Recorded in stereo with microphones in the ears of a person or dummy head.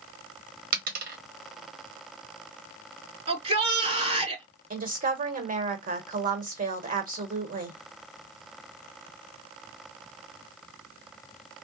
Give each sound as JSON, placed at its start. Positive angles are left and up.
{"t": 0.7, "sound": "a dropped coin", "side_deg": -55, "distance_m": 1.2}
{"t": 3.3, "sound": "a shout", "side_deg": -40, "distance_m": 2.0}
{"t": 4.7, "sound": "a woman speaking", "side_deg": -40, "distance_m": 1.1}